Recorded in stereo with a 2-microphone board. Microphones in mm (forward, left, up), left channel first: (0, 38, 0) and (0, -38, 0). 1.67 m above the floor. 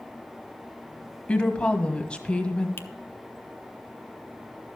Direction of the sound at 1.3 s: 15° left (ahead or behind).